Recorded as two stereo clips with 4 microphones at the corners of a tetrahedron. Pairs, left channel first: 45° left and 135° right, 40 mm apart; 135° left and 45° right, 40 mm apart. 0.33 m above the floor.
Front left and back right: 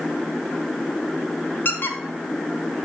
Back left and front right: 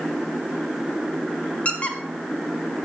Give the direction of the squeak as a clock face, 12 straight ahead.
9 o'clock.